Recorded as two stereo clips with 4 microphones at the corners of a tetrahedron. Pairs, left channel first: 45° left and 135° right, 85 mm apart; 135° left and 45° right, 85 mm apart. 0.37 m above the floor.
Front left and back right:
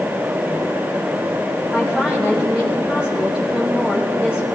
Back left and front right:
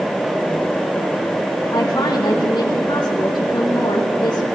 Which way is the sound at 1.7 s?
125° left.